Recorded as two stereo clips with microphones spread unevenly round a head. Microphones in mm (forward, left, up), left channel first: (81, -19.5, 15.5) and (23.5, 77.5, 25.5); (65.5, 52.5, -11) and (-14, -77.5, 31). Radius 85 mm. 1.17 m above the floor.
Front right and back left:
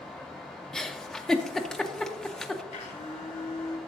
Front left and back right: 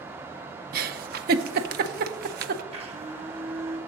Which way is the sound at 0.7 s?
140° right.